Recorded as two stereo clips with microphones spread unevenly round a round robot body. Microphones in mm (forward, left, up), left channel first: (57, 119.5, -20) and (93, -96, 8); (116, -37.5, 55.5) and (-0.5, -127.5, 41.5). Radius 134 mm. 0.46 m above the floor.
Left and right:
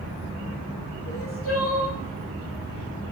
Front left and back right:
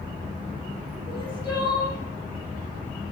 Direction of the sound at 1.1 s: 80° left.